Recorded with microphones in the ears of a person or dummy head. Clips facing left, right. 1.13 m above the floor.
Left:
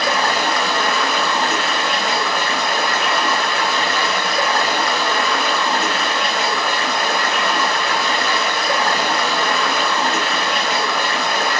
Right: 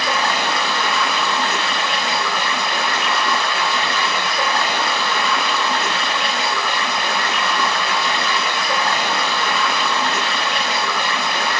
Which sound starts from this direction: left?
Running water, at 0.0 s.